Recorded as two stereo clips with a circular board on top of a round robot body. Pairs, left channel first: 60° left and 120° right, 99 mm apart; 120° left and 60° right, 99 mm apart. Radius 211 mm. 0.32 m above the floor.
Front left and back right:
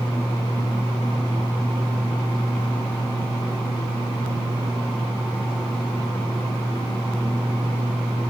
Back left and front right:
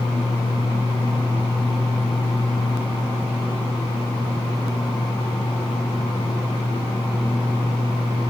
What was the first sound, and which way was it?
Only background noise.